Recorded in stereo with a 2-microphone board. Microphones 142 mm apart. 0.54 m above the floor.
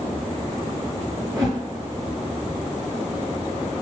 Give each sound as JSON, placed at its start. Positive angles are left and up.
{"t": 1.3, "sound": "a whoosh", "side_deg": -30, "distance_m": 1.2}